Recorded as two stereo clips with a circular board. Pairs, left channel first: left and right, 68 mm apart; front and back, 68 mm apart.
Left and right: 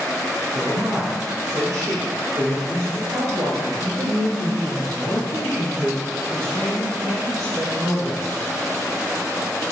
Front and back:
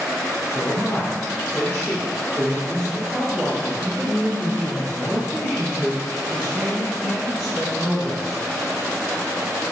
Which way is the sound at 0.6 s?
45° right.